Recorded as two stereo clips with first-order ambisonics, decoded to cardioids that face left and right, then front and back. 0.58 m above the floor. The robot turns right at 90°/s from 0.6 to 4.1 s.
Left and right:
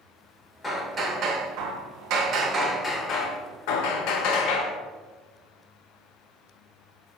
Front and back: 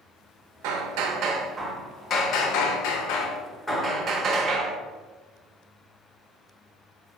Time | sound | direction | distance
0.6 | hammering | 170° left | 0.6 m